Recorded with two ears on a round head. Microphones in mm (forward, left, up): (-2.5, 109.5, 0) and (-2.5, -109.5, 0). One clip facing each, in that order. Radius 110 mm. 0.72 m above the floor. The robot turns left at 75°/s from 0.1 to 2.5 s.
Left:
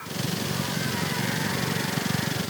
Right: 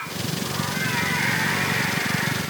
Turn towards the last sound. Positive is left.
No sound to turn to.